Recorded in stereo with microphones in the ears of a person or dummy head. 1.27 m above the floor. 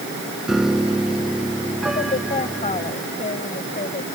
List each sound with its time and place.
0.5 s a piano: 5° right (ahead or behind)
1.9 s a woman speaking: 30° left (ahead or behind)